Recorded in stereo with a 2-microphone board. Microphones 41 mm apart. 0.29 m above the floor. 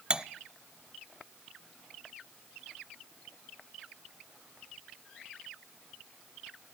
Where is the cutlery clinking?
20° right (ahead or behind), 0.6 m.